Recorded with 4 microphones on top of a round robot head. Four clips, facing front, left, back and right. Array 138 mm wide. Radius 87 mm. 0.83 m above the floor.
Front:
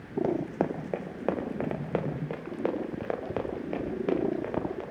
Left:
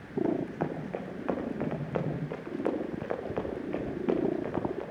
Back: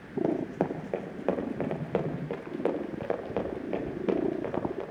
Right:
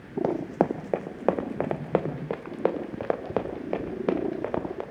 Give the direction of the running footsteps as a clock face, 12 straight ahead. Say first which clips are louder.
Right 7 dB, even; 3 o'clock.